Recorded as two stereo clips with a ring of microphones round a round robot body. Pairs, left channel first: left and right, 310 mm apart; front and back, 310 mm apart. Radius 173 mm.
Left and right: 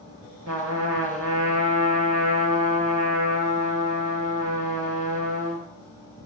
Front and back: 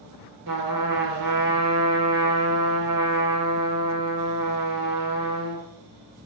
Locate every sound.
0.5 s a trumpet: 145° right, 4 m